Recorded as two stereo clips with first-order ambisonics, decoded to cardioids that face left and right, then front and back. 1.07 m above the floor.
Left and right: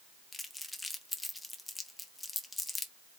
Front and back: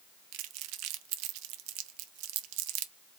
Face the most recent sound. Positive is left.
turn(degrees=175)